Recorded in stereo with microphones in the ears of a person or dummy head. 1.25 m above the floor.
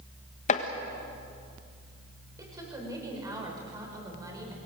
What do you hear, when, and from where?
0.5 s chopping: 40° left (ahead or behind), 1.5 m
2.4 s a woman speaking: 15° right (ahead or behind), 6 m